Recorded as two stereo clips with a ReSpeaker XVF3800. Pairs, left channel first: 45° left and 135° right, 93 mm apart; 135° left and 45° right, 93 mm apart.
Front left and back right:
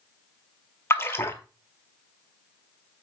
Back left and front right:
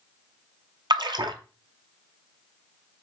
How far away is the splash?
About 0.7 m.